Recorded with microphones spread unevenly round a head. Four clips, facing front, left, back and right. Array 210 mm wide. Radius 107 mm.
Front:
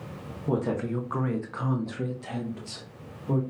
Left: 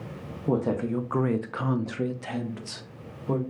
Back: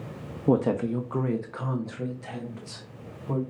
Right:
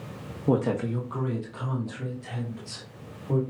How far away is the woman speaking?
About 0.6 m.